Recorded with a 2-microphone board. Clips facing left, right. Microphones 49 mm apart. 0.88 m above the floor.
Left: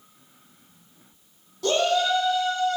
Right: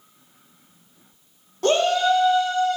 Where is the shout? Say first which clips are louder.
Right 3 dB; 50° right (ahead or behind), 2 m; by 2.8 s 70° right (ahead or behind), 2 m.